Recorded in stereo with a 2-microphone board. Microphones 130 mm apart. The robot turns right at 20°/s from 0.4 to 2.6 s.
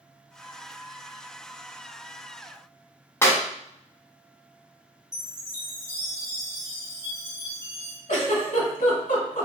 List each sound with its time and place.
3.2 s a clap: 20° left (ahead or behind), 0.8 m
5.1 s a chime: 25° left (ahead or behind), 1.2 m
8.1 s a giggle: 80° left, 1.2 m